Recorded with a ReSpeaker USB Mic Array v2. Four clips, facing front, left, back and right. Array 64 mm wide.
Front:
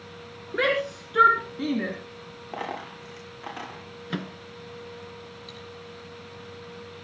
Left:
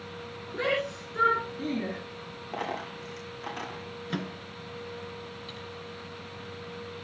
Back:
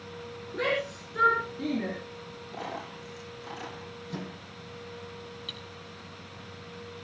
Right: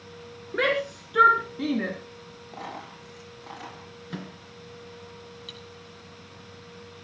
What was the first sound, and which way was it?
A shout, 45° right.